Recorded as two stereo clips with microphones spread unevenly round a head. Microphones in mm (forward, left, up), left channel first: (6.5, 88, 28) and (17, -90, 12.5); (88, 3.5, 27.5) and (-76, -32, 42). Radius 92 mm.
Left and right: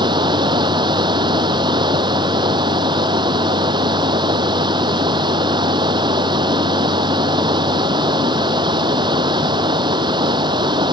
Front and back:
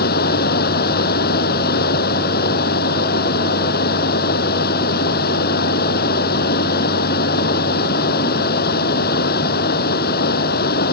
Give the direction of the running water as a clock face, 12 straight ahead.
1 o'clock.